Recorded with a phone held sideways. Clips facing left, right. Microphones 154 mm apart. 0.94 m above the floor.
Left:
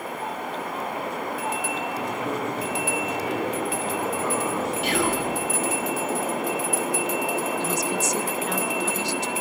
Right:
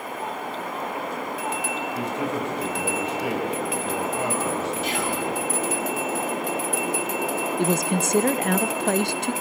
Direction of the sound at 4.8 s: 65° left (ahead or behind).